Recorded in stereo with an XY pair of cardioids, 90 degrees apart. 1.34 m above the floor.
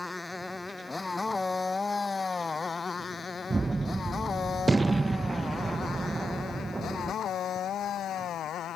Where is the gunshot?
20° right.